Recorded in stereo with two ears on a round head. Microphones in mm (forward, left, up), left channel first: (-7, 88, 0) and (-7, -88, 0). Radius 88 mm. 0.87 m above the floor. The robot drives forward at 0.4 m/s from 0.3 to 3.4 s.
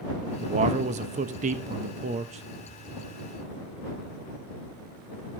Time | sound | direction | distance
0.4 | a man speaking | 30° right (ahead or behind) | 0.8 m